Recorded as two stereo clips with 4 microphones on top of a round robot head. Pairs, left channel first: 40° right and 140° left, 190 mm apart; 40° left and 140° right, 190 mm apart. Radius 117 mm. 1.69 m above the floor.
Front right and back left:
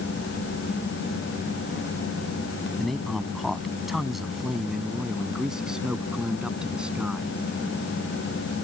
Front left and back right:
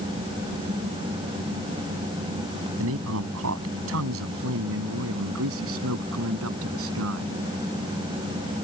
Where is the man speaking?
130° right; by 7.3 s 135° right.